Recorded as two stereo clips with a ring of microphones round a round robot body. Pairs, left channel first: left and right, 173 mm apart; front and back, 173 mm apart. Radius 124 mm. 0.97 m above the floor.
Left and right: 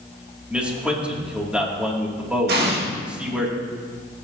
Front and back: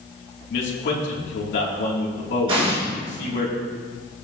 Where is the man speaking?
5° right, 2.5 m.